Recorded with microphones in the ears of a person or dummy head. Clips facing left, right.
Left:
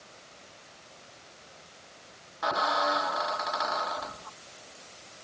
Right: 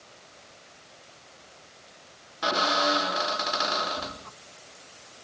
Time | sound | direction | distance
2.4 | a squeak | 45° right (ahead or behind) | ?